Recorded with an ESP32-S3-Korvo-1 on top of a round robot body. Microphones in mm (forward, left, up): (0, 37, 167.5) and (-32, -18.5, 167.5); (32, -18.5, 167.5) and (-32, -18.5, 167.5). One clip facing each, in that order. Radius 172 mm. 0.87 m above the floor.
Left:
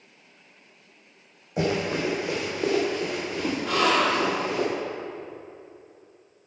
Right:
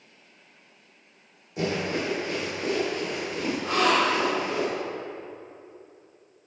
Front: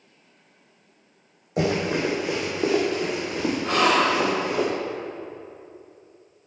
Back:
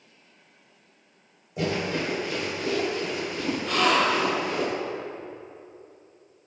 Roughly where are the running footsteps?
Ahead.